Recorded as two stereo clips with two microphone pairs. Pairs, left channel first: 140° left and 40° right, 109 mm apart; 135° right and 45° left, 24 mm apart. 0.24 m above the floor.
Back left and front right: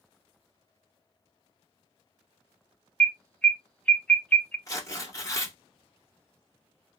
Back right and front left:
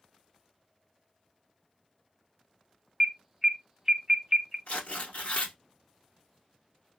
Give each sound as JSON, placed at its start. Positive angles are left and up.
{"t": 3.0, "sound": "an alarm", "azimuth_deg": 80, "distance_m": 0.7}
{"t": 4.7, "sound": "tearing paper", "azimuth_deg": -160, "distance_m": 1.1}